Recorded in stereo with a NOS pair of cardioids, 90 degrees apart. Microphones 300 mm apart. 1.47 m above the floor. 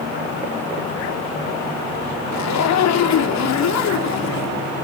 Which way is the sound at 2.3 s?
65° left.